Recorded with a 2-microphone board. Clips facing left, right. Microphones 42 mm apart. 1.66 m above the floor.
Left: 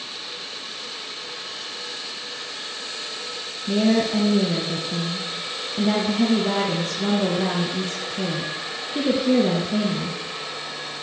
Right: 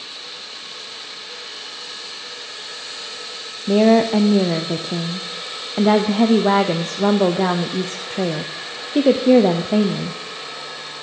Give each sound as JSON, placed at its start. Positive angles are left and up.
{"t": 3.7, "sound": "a woman speaking", "side_deg": -45, "distance_m": 0.6}